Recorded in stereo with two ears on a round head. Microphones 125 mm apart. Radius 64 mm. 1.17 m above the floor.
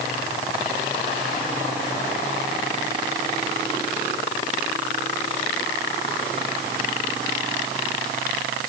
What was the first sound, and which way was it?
Only background noise.